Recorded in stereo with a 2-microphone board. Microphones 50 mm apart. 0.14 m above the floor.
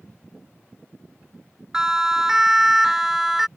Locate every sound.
1.7 s a siren: 15° right (ahead or behind); by 3.5 s 5° right (ahead or behind)